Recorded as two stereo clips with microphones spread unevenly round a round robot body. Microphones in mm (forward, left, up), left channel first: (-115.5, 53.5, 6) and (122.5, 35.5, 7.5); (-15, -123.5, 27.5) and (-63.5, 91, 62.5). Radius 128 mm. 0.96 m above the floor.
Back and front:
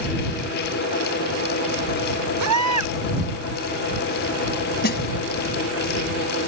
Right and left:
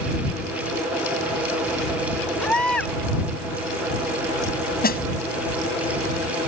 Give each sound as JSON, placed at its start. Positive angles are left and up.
{"t": 2.4, "sound": "a baby crying", "azimuth_deg": 10}
{"t": 4.8, "sound": "a snare drum", "azimuth_deg": -130}